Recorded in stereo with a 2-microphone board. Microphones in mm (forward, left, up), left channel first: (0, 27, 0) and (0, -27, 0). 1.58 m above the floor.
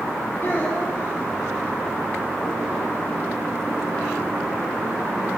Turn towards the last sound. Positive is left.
turn(degrees=50)  # may be behind; listen again after turning